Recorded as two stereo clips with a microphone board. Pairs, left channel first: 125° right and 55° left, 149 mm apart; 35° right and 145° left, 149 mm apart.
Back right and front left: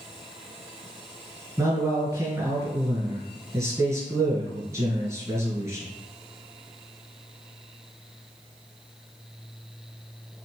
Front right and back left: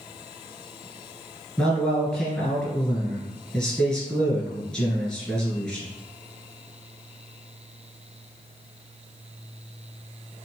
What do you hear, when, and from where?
1.6 s a man speaking: 40° left, 1.7 m